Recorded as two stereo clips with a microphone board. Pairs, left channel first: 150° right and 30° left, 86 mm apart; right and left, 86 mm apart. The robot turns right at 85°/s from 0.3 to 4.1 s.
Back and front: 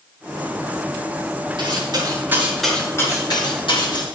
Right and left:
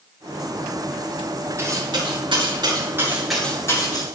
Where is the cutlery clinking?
35° left, 6.5 m; by 4.0 s 120° right, 6.5 m.